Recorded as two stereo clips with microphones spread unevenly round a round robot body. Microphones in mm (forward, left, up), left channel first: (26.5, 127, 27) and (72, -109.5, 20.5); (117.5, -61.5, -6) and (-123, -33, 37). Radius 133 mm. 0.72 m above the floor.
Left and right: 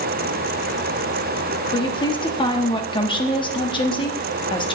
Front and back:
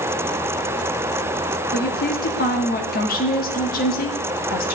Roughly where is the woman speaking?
Ahead left.